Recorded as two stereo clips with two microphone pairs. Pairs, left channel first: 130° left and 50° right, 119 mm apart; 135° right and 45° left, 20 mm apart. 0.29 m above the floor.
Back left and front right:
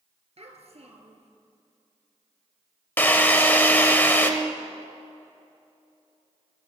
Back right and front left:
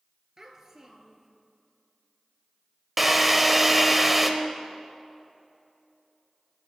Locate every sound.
0.4 s a child speaking: 20° right, 2.5 m
3.0 s a drill: 100° left, 0.9 m